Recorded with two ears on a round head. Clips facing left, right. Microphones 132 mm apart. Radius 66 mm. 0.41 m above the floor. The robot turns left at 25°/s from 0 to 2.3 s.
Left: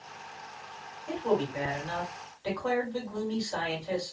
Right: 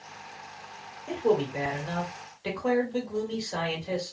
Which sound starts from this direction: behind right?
A man speaking, at 1.1 s.